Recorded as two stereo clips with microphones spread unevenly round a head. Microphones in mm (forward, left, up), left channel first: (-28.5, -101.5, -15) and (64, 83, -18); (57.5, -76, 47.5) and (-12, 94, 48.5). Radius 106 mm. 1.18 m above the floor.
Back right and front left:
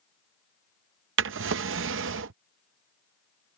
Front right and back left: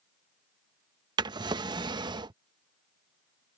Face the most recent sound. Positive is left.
turn(degrees=45)